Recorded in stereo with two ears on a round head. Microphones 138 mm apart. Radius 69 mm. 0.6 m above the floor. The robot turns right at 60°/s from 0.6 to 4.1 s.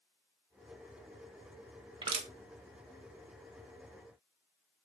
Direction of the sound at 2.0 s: 30° right (ahead or behind).